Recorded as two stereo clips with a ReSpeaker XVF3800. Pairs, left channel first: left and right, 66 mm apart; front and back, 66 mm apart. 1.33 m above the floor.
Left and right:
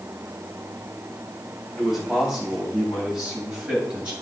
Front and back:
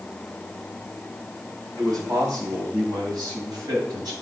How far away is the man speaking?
About 6 m.